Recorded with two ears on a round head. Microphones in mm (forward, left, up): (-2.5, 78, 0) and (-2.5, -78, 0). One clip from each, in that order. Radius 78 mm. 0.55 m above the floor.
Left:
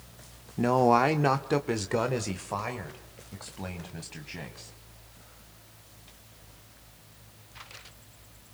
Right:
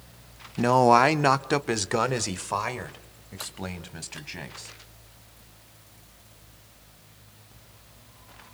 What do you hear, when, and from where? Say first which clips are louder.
0.6 s a man speaking: right 4 dB; 25° right (ahead or behind), 0.7 m; by 4.7 s 30° right (ahead or behind), 3.5 m